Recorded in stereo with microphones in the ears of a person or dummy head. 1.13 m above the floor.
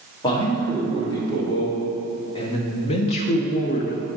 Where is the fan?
No fan in this recording.